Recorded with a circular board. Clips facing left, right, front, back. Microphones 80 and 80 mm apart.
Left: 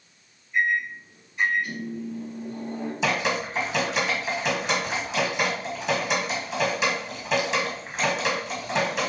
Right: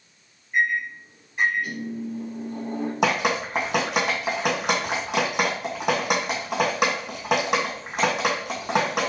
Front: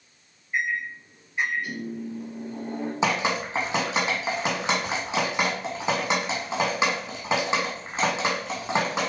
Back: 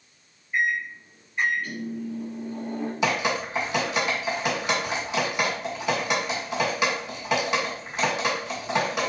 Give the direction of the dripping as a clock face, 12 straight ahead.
2 o'clock.